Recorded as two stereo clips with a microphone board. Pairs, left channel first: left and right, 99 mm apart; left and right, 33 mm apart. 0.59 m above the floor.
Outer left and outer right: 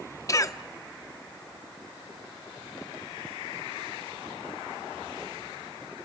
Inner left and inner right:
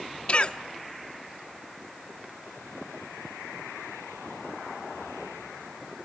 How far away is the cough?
About 0.9 m.